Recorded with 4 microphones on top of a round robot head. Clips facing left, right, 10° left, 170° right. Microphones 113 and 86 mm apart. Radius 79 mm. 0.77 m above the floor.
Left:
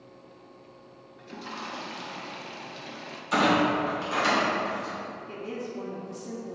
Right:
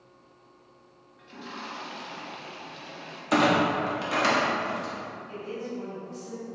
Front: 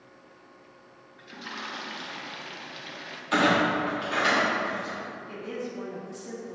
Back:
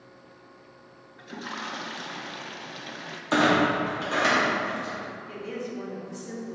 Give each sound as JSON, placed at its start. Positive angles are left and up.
{"t": 1.2, "sound": "a toilet flushing", "azimuth_deg": 135, "distance_m": 0.7}
{"t": 3.3, "sound": "a clunk", "azimuth_deg": -110, "distance_m": 1.3}
{"t": 5.3, "sound": "a woman speaking", "azimuth_deg": 80, "distance_m": 1.1}